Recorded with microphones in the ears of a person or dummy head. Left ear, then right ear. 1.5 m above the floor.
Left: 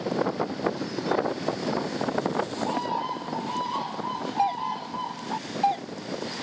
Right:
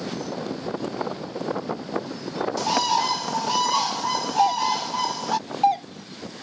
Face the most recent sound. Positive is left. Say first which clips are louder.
# right 5 dB
turn(degrees=-25)  # may be behind; listen again after turning